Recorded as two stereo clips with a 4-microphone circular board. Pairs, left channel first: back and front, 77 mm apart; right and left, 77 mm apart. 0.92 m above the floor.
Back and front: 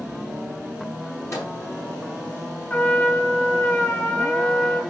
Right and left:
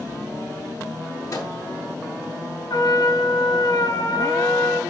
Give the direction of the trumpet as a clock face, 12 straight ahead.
4 o'clock.